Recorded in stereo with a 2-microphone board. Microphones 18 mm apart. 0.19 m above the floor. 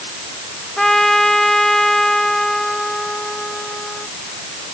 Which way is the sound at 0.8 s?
25° left (ahead or behind).